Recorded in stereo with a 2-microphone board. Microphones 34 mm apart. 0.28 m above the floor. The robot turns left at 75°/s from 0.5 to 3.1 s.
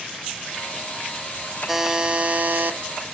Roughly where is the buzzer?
Ahead.